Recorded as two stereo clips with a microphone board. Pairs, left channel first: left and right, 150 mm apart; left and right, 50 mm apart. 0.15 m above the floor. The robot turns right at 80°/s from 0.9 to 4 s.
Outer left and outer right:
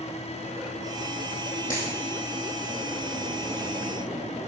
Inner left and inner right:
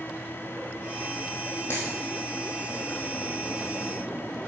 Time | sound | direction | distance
1.7 | a dropped coin | 60° left (ahead or behind) | 3 m